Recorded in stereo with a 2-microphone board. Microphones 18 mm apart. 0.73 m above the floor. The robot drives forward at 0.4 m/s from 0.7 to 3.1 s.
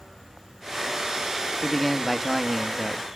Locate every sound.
1.6 s a man speaking: 5° right (ahead or behind), 1.1 m; by 3.1 s 10° right (ahead or behind), 0.7 m